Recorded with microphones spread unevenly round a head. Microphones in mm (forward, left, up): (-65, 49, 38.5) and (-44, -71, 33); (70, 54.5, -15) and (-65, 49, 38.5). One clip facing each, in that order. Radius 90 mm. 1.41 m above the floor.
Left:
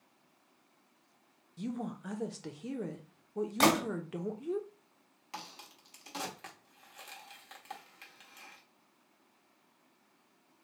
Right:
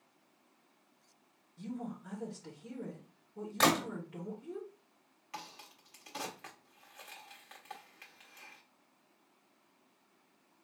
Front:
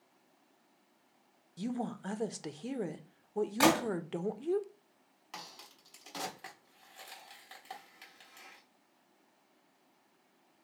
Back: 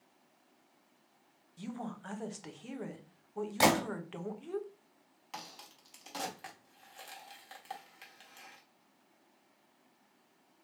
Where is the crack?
130° left, 1.1 m.